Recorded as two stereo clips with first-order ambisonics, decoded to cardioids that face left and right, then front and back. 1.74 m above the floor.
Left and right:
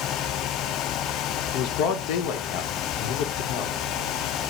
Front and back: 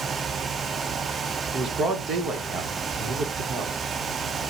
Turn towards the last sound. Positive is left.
turn(degrees=115)